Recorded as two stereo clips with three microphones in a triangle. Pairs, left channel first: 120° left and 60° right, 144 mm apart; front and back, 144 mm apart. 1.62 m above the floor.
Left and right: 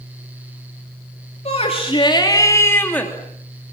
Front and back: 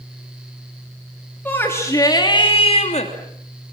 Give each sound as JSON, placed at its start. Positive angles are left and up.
{"t": 1.4, "sound": "a shout", "azimuth_deg": 80, "distance_m": 3.5}